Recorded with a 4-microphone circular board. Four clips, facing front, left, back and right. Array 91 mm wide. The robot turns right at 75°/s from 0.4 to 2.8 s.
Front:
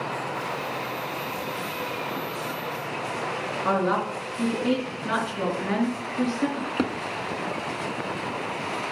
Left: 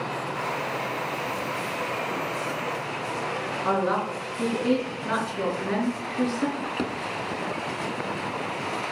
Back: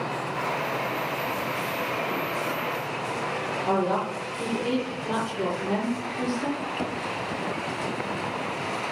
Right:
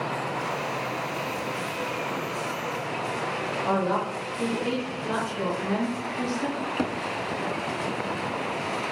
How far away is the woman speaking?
About 4.5 m.